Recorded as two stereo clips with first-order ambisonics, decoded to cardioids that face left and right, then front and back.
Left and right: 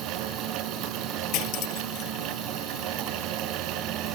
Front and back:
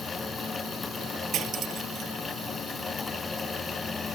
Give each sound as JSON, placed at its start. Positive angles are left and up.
{"t": 1.3, "sound": "cutlery clinking", "azimuth_deg": 125}